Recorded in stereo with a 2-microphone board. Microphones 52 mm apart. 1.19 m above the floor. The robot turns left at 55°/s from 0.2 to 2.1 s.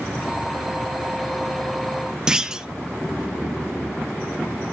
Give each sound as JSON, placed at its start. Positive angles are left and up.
{"t": 2.3, "sound": "a clunk", "side_deg": -15, "distance_m": 0.7}